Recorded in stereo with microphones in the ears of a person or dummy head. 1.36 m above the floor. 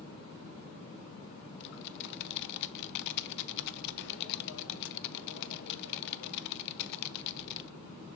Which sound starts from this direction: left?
Typing on a keyboard, at 1.6 s.